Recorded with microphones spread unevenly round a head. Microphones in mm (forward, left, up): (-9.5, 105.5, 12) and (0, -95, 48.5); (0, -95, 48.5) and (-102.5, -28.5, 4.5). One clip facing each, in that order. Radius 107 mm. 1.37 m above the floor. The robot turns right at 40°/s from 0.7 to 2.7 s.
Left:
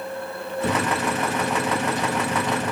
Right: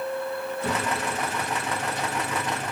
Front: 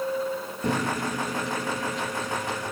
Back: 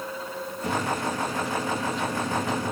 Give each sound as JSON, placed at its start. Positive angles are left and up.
{"t": 0.6, "sound": "a microwave", "azimuth_deg": 20, "distance_m": 1.0}